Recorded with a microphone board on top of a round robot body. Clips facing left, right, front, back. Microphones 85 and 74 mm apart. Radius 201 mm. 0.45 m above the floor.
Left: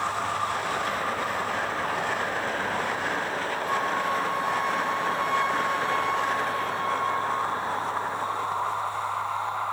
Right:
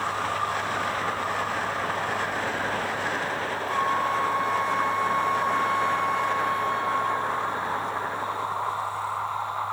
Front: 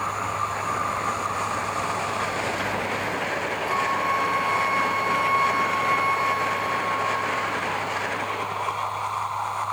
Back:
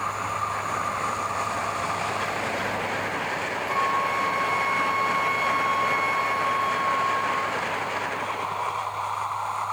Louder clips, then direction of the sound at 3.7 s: Right 2 dB, even; 70° left.